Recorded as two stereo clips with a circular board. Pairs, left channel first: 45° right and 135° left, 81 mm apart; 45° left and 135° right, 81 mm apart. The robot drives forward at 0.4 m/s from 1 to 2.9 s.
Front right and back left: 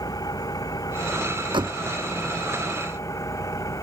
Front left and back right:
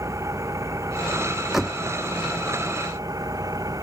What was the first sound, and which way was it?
An engine running, 85° right.